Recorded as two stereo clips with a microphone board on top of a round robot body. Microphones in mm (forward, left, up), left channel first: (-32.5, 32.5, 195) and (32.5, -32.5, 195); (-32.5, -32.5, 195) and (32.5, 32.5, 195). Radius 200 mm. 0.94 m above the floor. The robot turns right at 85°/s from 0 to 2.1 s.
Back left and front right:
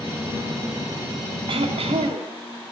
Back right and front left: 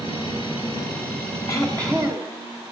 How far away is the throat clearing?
About 1.2 m.